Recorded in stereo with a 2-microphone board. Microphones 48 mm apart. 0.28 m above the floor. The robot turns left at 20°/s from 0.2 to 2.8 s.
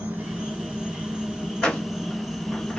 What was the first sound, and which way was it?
An insect, 135° right.